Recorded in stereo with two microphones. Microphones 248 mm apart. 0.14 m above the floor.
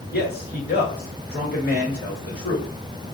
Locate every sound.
0.1 s a man speaking: 40° left (ahead or behind), 1.7 m